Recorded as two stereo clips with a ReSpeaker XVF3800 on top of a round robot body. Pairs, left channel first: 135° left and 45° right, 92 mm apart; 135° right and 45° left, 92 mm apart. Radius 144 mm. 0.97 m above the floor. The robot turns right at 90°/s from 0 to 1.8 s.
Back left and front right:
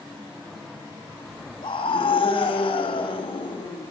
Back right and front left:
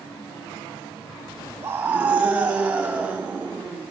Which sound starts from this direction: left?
A scream, at 1.6 s.